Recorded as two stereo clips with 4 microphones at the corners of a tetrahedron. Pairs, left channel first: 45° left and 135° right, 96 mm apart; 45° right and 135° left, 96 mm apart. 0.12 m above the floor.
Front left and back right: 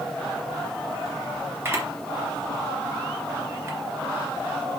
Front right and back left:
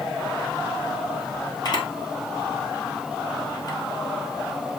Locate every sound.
1.6 s a camera shutter: 75° right, 2.5 m